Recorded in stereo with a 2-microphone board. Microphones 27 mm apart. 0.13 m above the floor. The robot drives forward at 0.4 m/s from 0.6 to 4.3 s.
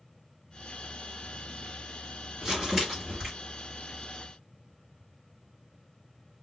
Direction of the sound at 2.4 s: 20° right (ahead or behind).